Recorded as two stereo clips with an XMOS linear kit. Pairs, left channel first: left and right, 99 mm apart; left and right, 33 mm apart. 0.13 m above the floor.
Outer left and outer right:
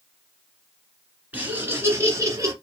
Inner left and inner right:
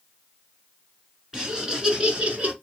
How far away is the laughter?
About 1.9 m.